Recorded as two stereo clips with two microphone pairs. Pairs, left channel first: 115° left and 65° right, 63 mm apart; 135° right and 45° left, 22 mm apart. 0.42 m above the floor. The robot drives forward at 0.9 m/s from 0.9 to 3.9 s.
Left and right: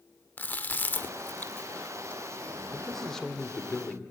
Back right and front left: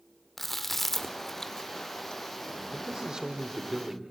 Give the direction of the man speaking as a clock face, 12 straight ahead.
11 o'clock.